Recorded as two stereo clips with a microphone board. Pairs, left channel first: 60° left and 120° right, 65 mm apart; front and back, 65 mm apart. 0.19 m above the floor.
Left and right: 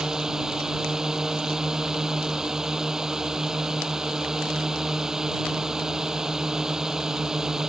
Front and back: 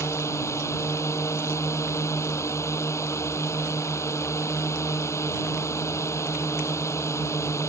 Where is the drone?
40° right.